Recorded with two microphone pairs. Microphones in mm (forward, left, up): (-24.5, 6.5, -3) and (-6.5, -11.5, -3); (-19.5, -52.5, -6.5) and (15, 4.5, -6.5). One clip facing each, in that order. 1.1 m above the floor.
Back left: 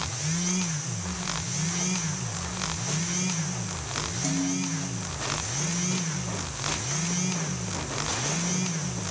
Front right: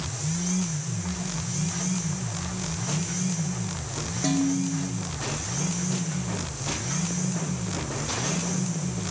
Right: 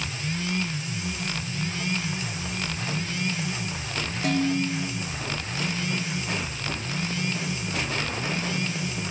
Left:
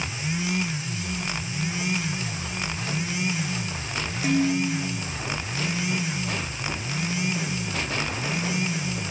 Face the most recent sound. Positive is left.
turn(degrees=-25)